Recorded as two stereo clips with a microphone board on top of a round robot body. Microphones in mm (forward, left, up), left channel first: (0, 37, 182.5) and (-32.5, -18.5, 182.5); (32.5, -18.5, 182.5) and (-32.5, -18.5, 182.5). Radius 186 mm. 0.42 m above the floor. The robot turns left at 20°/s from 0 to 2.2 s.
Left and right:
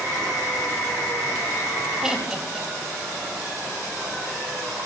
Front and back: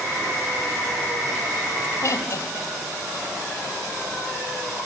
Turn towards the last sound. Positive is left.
turn(degrees=-40)